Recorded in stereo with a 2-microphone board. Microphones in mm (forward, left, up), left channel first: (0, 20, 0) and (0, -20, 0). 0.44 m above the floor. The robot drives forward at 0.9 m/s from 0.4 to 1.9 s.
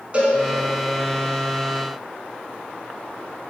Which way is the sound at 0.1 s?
30° right (ahead or behind).